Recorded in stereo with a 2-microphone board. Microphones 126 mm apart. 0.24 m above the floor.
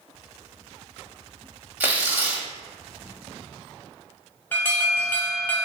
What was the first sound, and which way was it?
Tearing paper, 15° right (ahead or behind).